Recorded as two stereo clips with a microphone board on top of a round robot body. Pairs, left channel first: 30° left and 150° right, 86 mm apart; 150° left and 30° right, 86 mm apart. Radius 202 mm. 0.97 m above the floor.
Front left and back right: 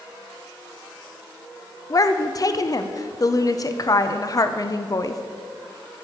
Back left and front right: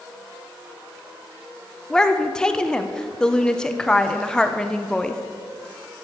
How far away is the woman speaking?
About 0.8 m.